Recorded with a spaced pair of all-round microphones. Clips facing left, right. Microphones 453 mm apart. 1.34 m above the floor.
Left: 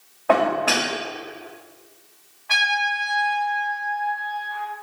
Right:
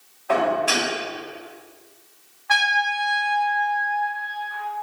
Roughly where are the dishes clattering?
Left.